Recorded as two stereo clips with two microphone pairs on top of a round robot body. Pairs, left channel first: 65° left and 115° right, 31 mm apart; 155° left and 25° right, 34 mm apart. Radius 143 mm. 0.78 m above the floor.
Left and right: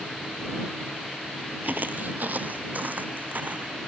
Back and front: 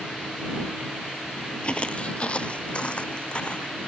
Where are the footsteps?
130° right; by 3.8 s 150° right.